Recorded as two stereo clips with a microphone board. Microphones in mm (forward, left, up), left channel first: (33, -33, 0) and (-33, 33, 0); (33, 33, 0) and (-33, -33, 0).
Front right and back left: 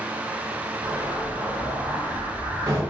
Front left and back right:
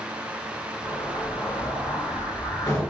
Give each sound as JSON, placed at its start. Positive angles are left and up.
{"t": 0.8, "sound": "an explosion", "azimuth_deg": 95, "distance_m": 0.9}